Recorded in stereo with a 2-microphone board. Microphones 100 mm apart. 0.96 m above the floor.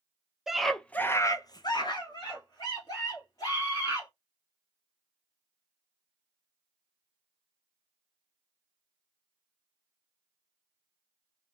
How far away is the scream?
About 0.7 m.